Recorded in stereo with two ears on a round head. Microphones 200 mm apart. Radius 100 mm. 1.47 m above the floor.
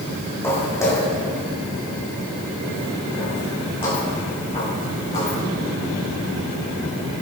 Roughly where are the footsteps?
Centre.